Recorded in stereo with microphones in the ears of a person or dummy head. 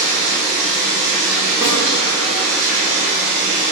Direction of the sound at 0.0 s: 65° right (ahead or behind).